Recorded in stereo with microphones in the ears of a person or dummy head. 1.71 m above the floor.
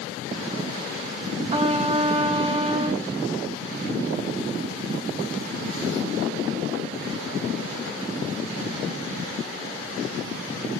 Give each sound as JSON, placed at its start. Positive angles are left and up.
{"t": 1.5, "sound": "a trumpet", "side_deg": -35, "distance_m": 1.3}